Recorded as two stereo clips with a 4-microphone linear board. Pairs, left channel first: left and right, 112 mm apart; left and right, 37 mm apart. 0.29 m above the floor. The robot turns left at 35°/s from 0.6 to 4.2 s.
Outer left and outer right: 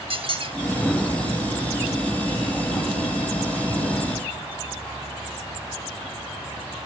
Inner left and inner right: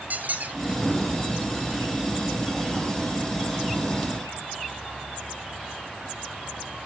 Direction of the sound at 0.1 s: 55° right (ahead or behind).